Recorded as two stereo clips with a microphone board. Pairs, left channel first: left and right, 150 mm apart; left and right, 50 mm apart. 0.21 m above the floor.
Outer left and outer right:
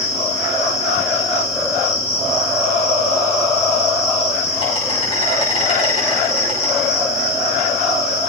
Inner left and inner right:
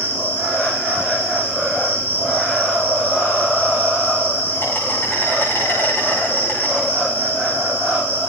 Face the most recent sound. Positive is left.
turn(degrees=45)  # may be behind; listen again after turning